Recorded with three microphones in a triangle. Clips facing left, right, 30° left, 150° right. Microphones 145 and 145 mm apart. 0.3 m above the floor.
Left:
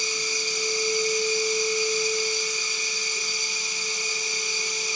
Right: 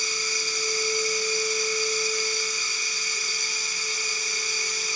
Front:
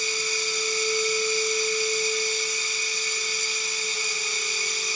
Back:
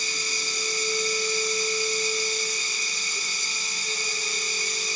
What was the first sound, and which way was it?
Running water, 160° left.